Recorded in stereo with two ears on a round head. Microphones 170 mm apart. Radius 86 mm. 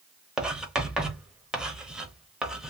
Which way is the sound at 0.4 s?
5° right (ahead or behind).